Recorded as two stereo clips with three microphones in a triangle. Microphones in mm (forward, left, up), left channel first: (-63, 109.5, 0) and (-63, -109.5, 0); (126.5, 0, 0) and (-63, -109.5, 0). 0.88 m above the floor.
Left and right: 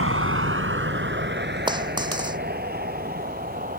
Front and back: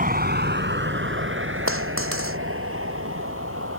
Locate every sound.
0.0 s a vehicle: 100° right; by 3.8 s 140° right
1.7 s a dropped coin: 160° right